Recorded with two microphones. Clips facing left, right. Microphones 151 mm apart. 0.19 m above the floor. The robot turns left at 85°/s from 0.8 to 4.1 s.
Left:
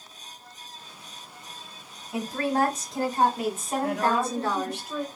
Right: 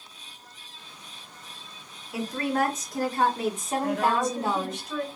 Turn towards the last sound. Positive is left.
turn(degrees=10)  # may be behind; listen again after turning